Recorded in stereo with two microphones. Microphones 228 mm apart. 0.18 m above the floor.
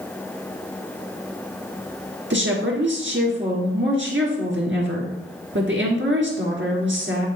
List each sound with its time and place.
2.3 s a woman speaking: 60° right (ahead or behind), 3 m